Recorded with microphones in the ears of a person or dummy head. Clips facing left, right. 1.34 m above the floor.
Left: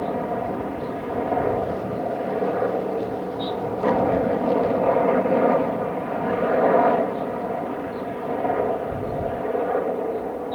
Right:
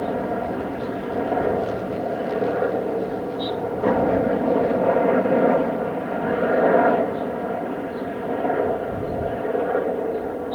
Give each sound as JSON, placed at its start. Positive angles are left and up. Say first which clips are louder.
{"t": 0.0, "sound": "a helicopter", "louder": "right 1 dB", "side_deg": -10}